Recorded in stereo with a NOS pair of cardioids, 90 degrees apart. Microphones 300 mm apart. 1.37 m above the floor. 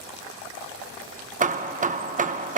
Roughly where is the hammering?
Ahead right.